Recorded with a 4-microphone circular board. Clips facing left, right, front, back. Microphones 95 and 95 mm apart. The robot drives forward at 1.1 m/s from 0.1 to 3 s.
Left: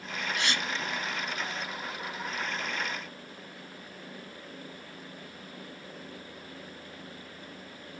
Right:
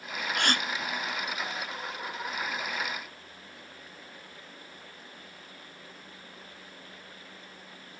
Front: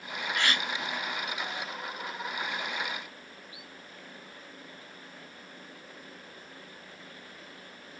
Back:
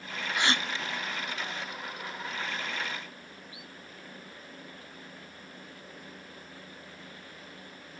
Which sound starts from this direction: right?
A gasp, at 0.3 s.